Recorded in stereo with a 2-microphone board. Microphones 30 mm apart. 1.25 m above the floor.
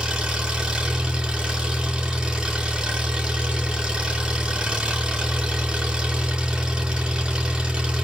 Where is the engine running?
35° right (ahead or behind), 3.5 m.